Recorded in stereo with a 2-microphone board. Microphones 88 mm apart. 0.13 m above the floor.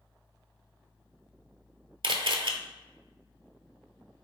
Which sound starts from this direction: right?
A camera shutter, at 2.0 s.